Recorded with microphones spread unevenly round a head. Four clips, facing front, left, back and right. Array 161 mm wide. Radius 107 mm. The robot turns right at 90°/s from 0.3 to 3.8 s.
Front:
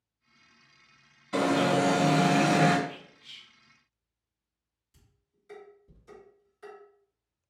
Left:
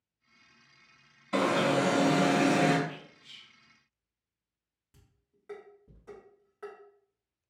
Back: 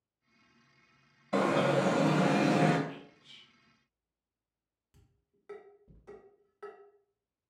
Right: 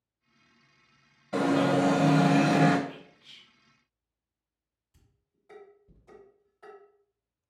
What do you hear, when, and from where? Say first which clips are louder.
1.3 s an alarm: right 2 dB, front 2 dB; 150° right, 1.6 m; by 2.8 s 20° right, 1.6 m
2.9 s whispering: even, front 1 dB; 135° right, 0.7 m; by 3.5 s 75° right, 0.7 m
4.9 s dishes clattering: left 3 dB, even; 130° left, 1.8 m